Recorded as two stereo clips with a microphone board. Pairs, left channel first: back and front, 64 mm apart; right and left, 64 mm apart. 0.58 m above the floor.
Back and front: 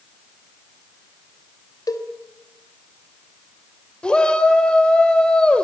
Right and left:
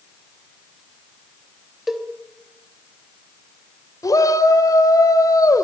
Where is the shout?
105° right, 2.5 m.